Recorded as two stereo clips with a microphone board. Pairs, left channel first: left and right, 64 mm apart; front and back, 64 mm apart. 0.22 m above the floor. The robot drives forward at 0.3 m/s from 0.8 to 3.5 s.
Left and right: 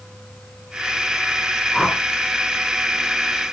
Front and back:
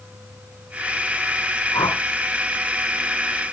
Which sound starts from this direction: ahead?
A whoosh, at 1.7 s.